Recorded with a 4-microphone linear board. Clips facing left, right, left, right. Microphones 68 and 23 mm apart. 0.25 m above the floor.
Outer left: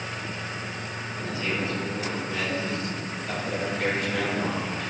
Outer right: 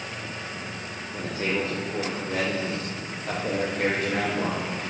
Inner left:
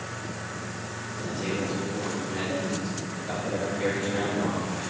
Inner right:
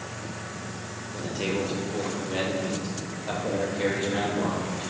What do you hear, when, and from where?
1.1 s a man speaking: 55° right (ahead or behind), 5 m; by 4.9 s 35° right (ahead or behind), 6.5 m